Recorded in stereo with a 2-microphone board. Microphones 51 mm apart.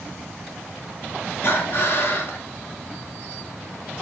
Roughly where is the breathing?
Left.